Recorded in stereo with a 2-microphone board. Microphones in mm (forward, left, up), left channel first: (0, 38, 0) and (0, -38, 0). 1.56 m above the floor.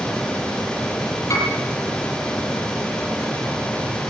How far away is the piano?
About 9 m.